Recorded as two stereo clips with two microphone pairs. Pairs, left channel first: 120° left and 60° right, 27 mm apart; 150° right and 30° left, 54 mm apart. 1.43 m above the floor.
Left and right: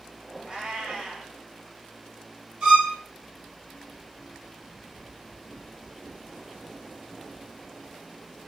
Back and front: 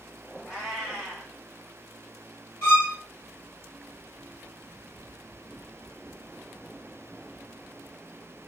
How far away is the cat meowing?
About 1.3 m.